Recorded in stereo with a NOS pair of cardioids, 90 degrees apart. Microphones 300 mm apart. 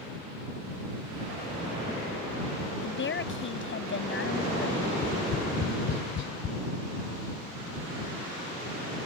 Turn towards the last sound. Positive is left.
turn(degrees=55)